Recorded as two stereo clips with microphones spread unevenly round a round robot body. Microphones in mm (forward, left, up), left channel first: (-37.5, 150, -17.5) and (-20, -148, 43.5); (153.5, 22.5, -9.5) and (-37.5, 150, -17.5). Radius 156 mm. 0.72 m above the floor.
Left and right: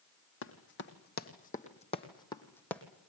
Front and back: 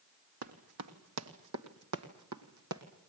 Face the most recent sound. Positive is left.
turn(degrees=-175)